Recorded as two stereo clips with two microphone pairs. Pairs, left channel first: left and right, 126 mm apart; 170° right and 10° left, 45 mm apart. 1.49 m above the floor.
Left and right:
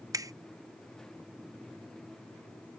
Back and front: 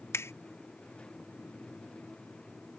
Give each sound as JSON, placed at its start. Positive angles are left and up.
{"t": 0.1, "sound": "a finger snap", "azimuth_deg": -155}